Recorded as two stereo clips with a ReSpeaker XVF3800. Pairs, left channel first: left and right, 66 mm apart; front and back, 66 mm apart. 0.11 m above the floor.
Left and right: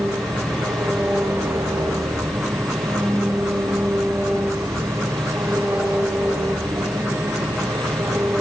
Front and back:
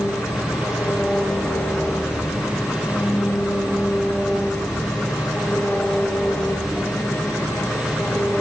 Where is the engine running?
55° right, 5.5 m.